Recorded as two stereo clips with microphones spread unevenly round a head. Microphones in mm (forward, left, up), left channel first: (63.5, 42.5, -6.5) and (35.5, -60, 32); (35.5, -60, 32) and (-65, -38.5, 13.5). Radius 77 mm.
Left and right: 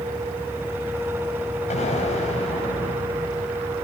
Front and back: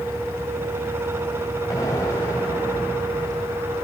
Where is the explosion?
60° left, 4.5 m.